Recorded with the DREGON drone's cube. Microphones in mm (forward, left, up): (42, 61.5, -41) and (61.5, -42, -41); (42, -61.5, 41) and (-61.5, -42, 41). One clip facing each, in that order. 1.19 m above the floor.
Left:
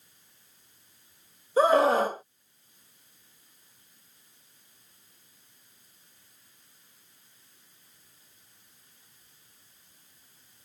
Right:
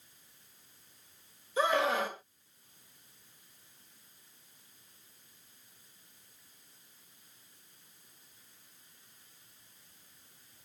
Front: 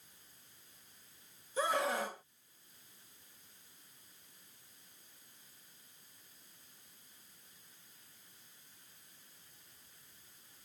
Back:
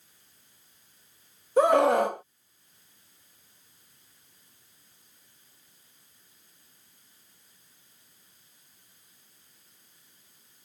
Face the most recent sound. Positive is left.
turn(degrees=150)